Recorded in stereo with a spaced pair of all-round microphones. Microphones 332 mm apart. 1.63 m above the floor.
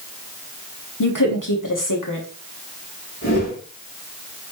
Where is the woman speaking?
70° left (ahead or behind), 1.3 m.